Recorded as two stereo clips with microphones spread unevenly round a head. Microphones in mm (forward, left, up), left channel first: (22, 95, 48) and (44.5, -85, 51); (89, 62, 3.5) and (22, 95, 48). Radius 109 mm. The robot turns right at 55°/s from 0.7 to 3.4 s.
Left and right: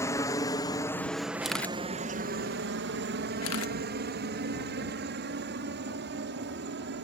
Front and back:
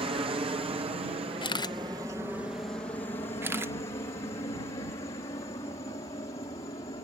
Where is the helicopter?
165° left; by 7.0 s 60° right.